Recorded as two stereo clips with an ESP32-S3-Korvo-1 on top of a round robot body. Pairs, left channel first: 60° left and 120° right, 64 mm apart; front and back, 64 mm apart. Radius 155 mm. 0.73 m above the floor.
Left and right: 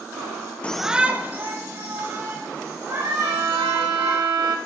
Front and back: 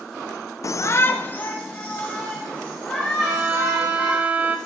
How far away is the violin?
About 1.6 m.